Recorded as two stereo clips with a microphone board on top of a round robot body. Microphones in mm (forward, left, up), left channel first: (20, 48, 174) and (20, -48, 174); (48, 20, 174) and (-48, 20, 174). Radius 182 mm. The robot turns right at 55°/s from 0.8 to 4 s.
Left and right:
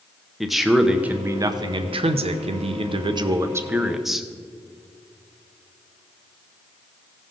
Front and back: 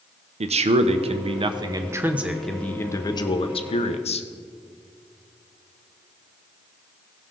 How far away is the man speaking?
About 0.6 m.